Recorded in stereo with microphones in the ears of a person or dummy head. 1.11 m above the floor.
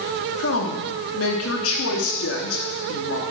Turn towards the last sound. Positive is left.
turn(degrees=70)  # may be behind; listen again after turning